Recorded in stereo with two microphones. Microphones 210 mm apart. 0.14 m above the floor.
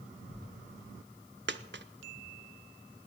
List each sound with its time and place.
1.5 s a dropped coin: 60° right (ahead or behind), 0.6 m